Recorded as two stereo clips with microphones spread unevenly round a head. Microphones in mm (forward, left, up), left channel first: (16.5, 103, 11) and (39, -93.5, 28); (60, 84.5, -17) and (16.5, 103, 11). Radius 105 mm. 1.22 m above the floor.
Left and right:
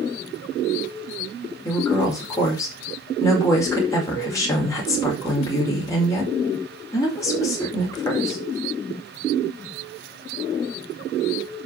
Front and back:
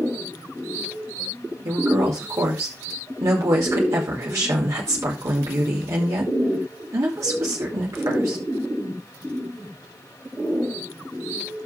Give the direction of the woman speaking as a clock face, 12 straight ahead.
6 o'clock.